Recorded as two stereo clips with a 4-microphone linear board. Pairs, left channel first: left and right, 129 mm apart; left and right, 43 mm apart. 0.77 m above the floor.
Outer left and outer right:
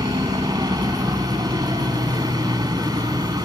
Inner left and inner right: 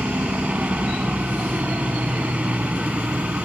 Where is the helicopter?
30° right (ahead or behind).